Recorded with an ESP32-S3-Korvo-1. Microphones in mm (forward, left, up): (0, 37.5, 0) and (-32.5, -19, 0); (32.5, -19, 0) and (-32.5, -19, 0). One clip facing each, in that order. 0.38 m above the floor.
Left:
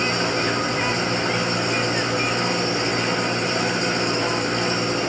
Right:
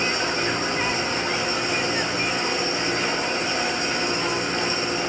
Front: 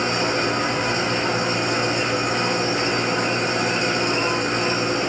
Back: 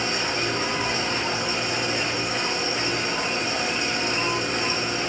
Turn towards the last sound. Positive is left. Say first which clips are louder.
# left 2 dB, front 5 dB
turn(degrees=30)